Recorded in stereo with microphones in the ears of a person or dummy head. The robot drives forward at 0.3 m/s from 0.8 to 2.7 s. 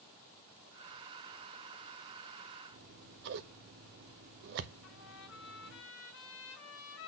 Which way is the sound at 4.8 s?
75° left (ahead or behind).